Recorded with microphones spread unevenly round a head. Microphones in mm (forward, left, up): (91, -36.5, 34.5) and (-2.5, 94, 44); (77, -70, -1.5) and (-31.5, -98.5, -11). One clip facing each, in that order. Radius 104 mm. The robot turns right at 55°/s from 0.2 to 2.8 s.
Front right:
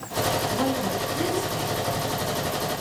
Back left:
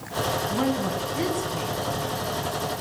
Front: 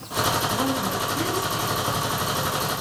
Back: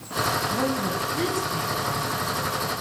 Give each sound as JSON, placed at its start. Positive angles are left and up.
{"t": 0.5, "sound": "a woman speaking", "azimuth_deg": 155, "distance_m": 9.0}